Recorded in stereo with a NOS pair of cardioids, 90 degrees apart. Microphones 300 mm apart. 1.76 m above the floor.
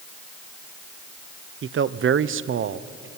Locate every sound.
1.6 s a man speaking: 45° right, 0.9 m